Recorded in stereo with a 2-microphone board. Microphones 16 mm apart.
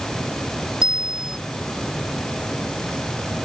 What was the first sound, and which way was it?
A bicycle bell, 45° right (ahead or behind).